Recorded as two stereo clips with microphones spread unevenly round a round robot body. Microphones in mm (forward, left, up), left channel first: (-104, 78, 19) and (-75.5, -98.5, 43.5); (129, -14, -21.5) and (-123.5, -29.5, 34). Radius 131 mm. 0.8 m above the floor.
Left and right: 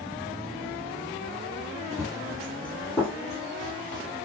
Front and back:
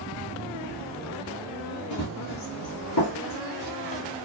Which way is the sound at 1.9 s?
25° right.